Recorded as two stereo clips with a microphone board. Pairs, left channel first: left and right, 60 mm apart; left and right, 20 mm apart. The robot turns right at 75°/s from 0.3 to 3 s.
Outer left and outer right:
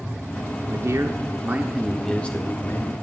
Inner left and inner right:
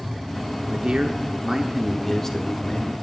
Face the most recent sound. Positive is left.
turn(degrees=80)